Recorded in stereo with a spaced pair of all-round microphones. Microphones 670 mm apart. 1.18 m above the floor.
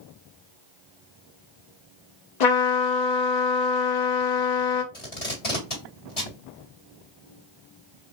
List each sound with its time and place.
2.4 s a trumpet: 80° left, 0.8 m
4.9 s tape being pulled: 60° left (ahead or behind), 1.9 m